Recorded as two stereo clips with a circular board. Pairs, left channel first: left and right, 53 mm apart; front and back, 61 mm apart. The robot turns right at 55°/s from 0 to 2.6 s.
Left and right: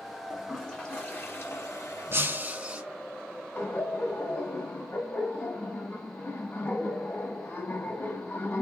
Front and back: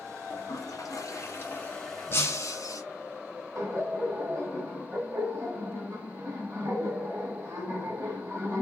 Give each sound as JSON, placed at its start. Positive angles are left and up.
{"t": 0.3, "sound": "a toilet flushing", "azimuth_deg": -10, "distance_m": 1.9}
{"t": 2.1, "sound": "breaking glass", "azimuth_deg": -55, "distance_m": 1.8}
{"t": 3.5, "sound": "laughter", "azimuth_deg": 130, "distance_m": 2.0}